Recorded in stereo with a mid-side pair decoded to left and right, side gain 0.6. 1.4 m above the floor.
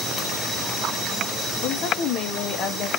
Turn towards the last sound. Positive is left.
turn(degrees=60)